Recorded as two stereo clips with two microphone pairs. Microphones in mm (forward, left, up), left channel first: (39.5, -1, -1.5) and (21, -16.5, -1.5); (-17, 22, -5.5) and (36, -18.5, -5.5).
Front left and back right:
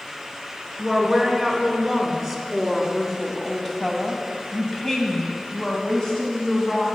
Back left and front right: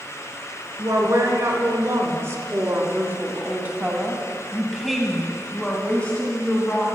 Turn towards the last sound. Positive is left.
turn(degrees=95)